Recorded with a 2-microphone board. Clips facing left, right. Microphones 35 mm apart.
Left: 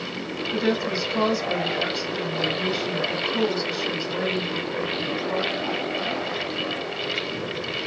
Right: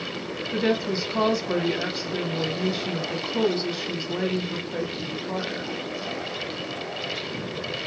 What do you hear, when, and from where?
0.5 s a woman speaking: 5° right (ahead or behind), 0.9 m